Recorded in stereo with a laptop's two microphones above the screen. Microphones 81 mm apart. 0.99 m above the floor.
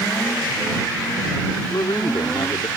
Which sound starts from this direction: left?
A man speaking, at 1.7 s.